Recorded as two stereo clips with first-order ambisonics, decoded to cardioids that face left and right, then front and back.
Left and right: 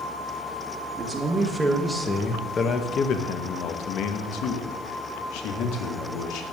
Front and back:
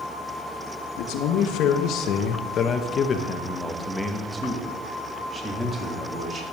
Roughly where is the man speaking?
Ahead.